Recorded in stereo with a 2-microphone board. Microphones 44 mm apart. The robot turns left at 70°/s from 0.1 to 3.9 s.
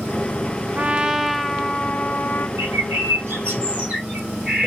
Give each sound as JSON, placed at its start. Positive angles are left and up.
{"t": 0.8, "sound": "a trumpet", "azimuth_deg": -140, "distance_m": 0.6}
{"t": 2.6, "sound": "a bird", "azimuth_deg": -70, "distance_m": 1.4}